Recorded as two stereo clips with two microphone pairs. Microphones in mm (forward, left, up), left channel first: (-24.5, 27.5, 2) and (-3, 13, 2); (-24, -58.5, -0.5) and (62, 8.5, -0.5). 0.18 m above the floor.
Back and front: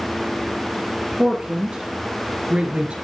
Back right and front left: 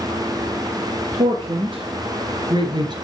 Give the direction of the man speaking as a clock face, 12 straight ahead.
11 o'clock.